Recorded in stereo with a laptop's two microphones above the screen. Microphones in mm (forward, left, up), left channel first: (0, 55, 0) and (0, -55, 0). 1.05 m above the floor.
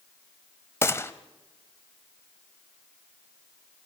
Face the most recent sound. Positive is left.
turn(degrees=25)  # may be behind; listen again after turning